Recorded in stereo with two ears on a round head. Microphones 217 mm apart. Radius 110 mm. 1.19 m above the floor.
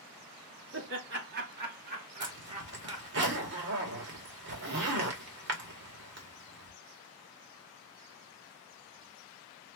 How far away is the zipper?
About 2 m.